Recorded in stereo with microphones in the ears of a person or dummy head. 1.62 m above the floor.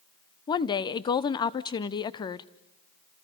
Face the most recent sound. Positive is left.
turn(degrees=20)  # may be behind; listen again after turning